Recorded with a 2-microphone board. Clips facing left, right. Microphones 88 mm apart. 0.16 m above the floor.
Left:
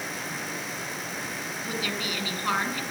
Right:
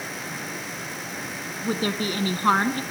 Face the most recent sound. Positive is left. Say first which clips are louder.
# right 8 dB
turn(degrees=-40)  # may be behind; listen again after turning